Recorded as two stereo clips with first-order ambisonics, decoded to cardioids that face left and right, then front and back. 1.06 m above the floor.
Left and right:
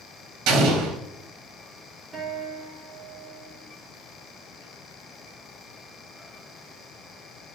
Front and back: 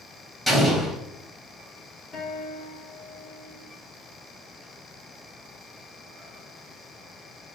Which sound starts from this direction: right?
An explosion, at 0.5 s.